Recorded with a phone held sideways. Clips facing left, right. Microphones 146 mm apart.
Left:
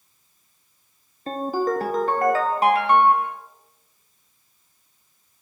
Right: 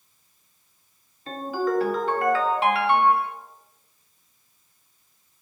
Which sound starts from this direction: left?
A ringtone, at 1.3 s.